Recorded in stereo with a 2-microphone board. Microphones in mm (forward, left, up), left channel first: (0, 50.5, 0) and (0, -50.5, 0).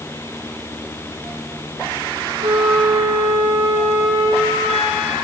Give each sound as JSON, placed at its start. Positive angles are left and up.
{"t": 2.4, "sound": "a flute", "side_deg": -75, "distance_m": 4.5}